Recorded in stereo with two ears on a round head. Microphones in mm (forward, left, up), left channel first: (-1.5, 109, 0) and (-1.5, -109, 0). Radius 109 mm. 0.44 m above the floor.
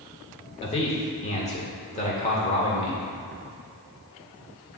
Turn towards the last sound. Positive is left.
turn(degrees=25)  # may be behind; listen again after turning